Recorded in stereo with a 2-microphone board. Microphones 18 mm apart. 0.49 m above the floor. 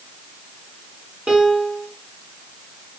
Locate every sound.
1.3 s a piano: 75° right (ahead or behind), 1.1 m